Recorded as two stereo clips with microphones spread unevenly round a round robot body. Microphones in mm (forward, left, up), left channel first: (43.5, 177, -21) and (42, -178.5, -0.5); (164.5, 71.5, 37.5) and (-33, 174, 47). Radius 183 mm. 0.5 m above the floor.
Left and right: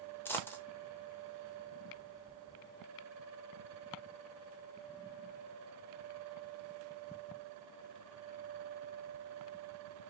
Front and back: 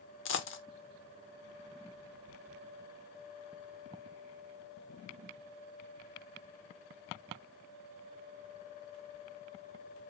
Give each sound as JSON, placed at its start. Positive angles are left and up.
{"t": 0.2, "sound": "a dropped coin", "azimuth_deg": 5, "distance_m": 0.7}